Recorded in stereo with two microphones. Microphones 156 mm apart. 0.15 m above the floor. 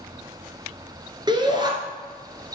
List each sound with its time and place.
1.3 s a shout: 30° right (ahead or behind), 1.9 m